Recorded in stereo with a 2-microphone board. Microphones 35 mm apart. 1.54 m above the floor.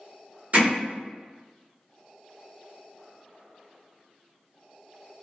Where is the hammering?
45° right (ahead or behind), 1.2 m.